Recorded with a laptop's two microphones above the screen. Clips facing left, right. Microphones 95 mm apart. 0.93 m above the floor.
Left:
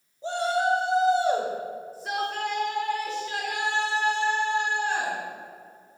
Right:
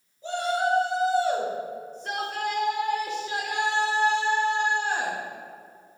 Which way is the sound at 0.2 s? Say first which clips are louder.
Left 1 dB; 30° left (ahead or behind).